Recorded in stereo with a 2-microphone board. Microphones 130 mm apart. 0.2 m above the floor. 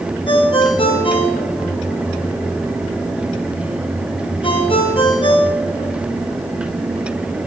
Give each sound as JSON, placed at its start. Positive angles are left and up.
{"t": 0.3, "sound": "a ringtone", "side_deg": 40, "distance_m": 1.9}